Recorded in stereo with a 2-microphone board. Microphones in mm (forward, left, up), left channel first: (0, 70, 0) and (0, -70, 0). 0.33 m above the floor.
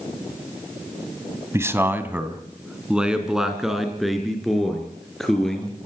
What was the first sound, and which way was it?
A man speaking, 20° right (ahead or behind).